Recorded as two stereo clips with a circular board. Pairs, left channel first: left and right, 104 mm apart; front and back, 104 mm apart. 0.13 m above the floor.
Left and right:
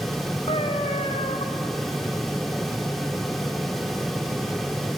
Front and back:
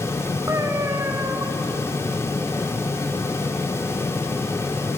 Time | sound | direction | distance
0.5 | a cat meowing | 115° left | 1.9 m